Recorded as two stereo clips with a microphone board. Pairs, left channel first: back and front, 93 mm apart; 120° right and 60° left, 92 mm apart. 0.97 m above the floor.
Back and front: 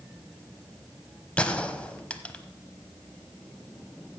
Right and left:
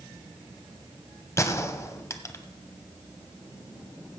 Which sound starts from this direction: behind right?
A gunshot, at 1.4 s.